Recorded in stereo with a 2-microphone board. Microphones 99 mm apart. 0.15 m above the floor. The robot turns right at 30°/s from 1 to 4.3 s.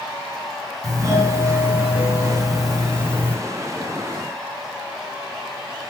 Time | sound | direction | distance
0.8 | a doorbell | 50° right | 3 m